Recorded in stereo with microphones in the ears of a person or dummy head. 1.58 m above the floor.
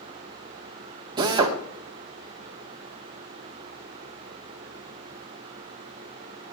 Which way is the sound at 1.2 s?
20° right (ahead or behind).